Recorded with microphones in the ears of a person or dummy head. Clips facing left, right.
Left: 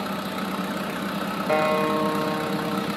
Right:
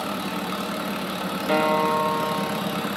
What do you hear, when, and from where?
1.5 s a guitar: 15° right (ahead or behind), 4.5 m